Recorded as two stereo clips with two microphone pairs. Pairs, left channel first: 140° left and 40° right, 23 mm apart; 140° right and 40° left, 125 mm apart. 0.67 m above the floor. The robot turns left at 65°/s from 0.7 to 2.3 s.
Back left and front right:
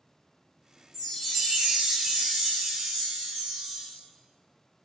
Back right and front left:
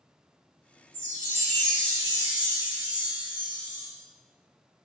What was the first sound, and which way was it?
A chime, 50° left.